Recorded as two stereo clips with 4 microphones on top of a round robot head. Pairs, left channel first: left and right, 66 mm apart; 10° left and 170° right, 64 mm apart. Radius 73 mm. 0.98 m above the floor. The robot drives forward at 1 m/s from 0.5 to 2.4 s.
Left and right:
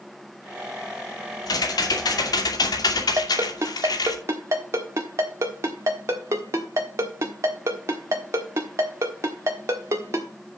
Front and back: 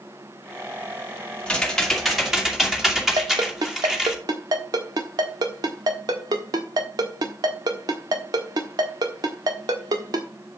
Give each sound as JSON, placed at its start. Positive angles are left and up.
{"t": 1.5, "sound": "typing on a keyboard", "azimuth_deg": 80, "distance_m": 2.5}
{"t": 3.2, "sound": "a ringtone", "azimuth_deg": -145, "distance_m": 1.4}